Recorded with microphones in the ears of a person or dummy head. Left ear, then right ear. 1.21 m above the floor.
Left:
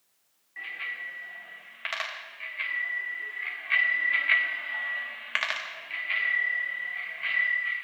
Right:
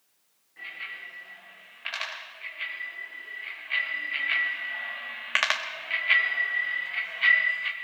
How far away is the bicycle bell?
About 6.5 m.